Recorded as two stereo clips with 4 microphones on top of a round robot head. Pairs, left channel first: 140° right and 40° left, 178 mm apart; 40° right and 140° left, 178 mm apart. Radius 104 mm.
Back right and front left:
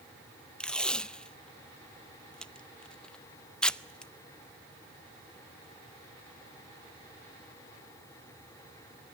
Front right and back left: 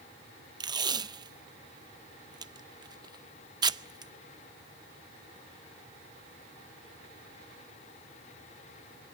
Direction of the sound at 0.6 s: 145° left.